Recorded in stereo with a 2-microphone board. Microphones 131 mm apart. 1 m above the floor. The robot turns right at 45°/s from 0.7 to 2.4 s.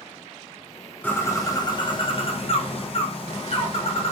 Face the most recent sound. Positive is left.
turn(degrees=80)